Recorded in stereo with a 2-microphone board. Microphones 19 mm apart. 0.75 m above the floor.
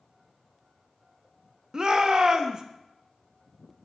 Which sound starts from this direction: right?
A shout, at 1.7 s.